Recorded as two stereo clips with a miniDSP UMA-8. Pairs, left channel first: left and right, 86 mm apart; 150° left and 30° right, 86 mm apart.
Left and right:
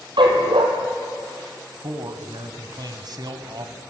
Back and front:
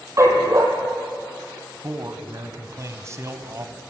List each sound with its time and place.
0.2 s a dog barking: 85° right, 3.5 m
1.8 s a man speaking: 75° right, 2 m